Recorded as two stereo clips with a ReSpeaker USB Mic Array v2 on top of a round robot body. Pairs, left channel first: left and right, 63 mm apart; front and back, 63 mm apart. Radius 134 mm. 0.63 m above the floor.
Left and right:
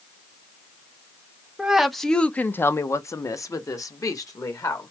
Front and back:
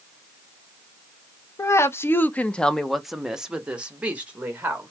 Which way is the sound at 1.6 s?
15° right.